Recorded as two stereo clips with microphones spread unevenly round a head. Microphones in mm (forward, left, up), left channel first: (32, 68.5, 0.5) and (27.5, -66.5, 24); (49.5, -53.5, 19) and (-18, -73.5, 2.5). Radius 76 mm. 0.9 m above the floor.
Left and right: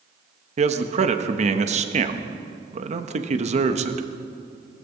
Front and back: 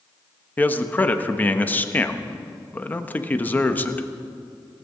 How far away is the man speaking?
About 1.1 m.